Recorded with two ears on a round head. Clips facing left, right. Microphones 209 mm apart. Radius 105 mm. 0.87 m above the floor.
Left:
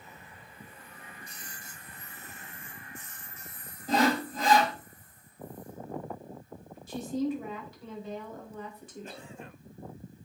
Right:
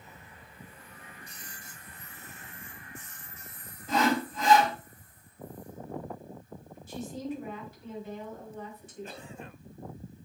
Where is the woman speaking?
65° left (ahead or behind), 4.5 m.